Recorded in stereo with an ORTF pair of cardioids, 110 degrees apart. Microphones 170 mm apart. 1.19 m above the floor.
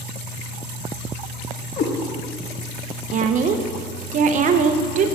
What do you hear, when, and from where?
1.8 s a cat meowing: 55° left, 1.2 m
3.1 s a woman speaking: 50° right, 0.7 m